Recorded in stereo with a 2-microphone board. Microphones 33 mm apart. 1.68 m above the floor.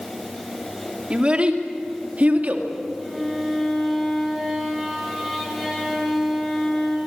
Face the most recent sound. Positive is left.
turn(degrees=0)  # may be behind; listen again after turning